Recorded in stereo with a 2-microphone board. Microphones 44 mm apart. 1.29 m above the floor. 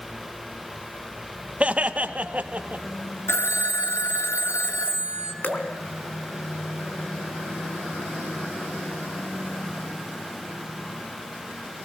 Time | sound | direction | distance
1.6 | laughter | 25° right (ahead or behind) | 1.4 m
3.3 | a phone ringing | 70° left (ahead or behind) | 1.9 m
5.4 | dripping | 35° left (ahead or behind) | 3 m